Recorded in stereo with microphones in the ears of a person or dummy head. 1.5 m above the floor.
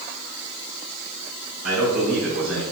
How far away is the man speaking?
About 3 m.